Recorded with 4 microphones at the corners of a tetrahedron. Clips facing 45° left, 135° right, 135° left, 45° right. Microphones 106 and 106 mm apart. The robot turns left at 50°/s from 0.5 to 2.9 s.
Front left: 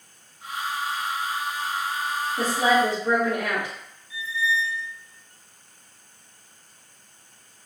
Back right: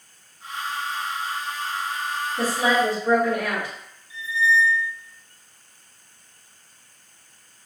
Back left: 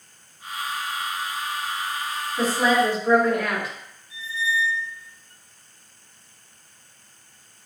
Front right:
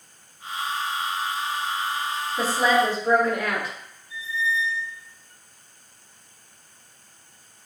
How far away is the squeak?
About 1.1 m.